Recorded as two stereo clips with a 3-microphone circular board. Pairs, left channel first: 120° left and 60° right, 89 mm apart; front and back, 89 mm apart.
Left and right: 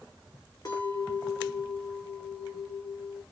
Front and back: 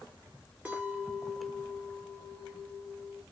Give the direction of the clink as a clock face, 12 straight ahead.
8 o'clock.